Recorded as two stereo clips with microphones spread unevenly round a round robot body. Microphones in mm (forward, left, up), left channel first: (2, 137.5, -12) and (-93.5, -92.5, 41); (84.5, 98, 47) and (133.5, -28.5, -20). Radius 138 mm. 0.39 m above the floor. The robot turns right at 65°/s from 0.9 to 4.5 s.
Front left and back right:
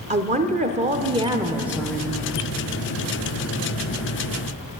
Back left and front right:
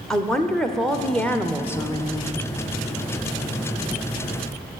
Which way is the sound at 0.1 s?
60° right.